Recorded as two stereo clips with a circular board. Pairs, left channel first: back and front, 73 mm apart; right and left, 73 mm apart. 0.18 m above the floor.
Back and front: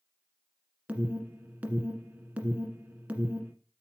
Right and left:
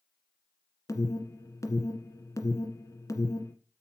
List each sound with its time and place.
0.9 s an alarm: 65° right, 1.6 m